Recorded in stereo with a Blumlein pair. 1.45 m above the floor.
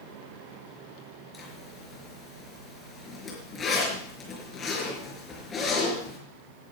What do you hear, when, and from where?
1.3 s a zipper: 20° left, 4.5 m